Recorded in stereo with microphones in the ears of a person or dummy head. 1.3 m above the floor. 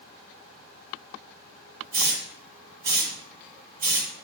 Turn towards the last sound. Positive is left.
turn(degrees=-10)  # may be behind; listen again after turning